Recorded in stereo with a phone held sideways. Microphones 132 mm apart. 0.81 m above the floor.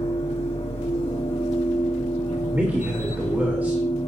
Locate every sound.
0.0 s a machine running: 55° left (ahead or behind), 2.5 m
2.5 s a man speaking: 15° right (ahead or behind), 2.5 m